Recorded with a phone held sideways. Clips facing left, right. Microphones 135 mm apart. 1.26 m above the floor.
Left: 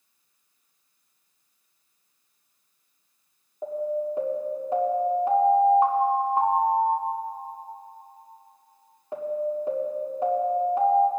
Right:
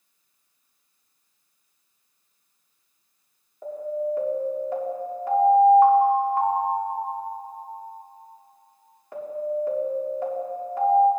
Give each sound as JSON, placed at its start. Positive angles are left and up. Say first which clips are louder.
{"t": 3.6, "sound": "an alarm", "louder": "even", "side_deg": 25, "distance_m": 2.0}